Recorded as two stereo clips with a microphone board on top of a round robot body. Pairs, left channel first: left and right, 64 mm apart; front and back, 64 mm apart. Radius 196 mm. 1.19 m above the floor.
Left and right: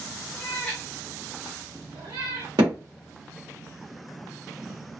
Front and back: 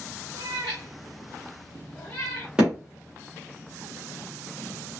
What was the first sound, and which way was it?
A cat meowing, 160° left.